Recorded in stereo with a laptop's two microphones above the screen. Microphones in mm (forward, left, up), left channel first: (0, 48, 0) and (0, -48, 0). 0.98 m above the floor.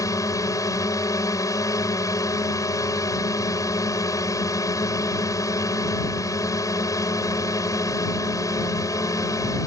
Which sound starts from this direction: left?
A drone, at 0.0 s.